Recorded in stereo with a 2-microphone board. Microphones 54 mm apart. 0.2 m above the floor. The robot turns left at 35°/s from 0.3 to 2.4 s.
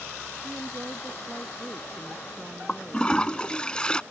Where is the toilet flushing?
20° left (ahead or behind).